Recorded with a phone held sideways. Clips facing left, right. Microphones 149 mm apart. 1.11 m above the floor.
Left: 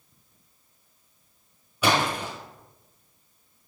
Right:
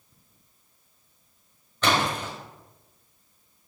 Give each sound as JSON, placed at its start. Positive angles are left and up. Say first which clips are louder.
{"t": 1.8, "sound": "a splash", "louder": "left 1 dB", "side_deg": 10, "distance_m": 3.0}